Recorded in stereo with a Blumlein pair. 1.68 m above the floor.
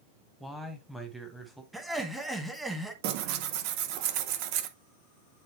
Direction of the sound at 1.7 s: 5° right.